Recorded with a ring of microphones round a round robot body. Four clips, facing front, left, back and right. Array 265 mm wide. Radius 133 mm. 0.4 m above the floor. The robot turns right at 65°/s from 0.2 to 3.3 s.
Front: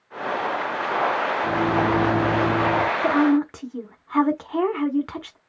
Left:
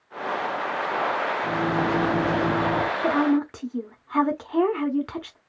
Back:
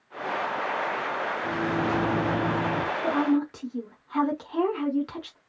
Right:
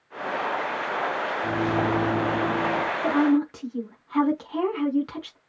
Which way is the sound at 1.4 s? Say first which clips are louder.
Right 2 dB, front 6 dB; 20° right.